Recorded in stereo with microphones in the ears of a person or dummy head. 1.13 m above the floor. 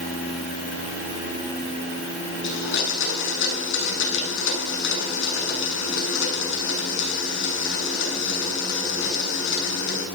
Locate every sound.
2.4 s a blender: 70° left (ahead or behind), 7 m